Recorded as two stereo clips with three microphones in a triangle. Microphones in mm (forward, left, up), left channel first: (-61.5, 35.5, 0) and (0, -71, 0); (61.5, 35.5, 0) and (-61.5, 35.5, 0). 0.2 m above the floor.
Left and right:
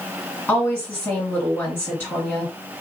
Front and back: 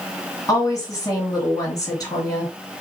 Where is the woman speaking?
55° left, 2.5 m.